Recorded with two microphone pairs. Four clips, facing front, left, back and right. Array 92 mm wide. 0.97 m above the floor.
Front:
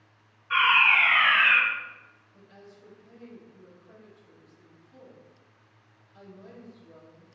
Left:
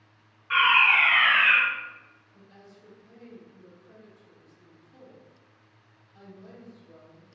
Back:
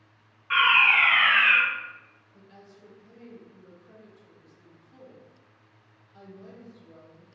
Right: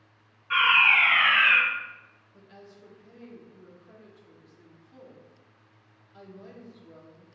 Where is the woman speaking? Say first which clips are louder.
Right 3 dB, even; 125° right, 1.1 m.